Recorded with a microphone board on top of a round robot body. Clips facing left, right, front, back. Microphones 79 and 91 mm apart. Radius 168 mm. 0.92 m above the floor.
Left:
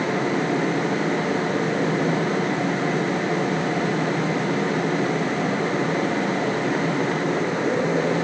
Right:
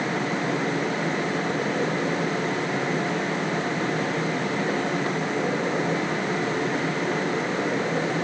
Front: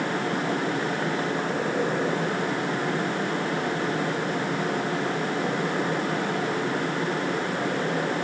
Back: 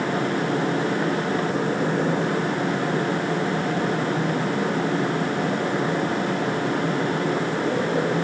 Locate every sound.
Only background noise.